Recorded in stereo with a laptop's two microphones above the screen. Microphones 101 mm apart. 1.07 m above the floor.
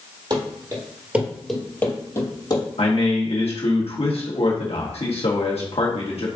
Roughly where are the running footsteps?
Right.